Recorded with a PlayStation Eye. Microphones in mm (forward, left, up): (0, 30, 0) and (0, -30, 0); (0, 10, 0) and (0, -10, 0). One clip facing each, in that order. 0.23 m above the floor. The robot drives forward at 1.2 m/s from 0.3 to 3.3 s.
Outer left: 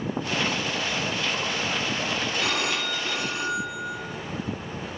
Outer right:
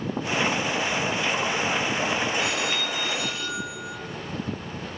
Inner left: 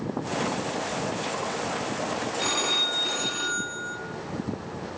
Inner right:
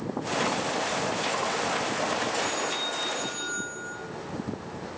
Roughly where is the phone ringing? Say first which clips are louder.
Even, inner left 4 dB; left.